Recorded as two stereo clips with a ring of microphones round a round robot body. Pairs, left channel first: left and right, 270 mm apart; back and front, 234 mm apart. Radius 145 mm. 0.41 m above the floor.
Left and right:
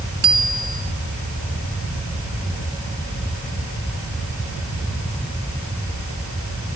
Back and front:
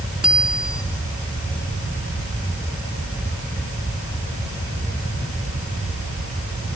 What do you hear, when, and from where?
0.2 s a bicycle bell: 85° right, 4 m